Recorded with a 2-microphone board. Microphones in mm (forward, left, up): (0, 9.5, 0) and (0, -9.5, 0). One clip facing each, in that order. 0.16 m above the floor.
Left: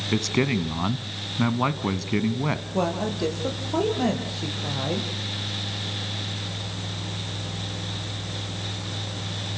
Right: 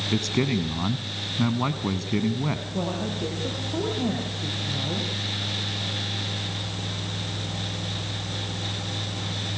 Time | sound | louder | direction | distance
0.1 | a man speaking | left 2 dB | 15° left (ahead or behind) | 1.2 m
2.7 | a woman speaking | left 3 dB | 40° left (ahead or behind) | 6.5 m